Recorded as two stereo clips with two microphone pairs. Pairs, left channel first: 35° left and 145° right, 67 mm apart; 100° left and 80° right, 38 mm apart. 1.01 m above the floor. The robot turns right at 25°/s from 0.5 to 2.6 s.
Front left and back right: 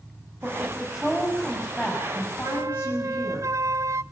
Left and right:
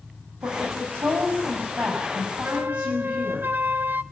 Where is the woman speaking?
80° right, 6.5 m; by 3.4 s 25° right, 6.5 m.